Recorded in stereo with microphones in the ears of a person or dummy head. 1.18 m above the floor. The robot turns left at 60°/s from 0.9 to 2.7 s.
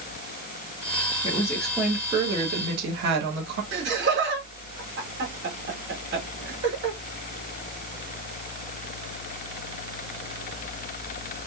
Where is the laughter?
60° right (ahead or behind), 3 m.